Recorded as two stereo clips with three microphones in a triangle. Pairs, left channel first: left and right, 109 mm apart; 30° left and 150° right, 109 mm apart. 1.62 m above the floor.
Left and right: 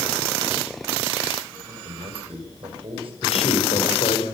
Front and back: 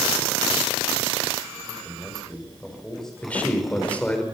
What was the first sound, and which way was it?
A man speaking, 55° right.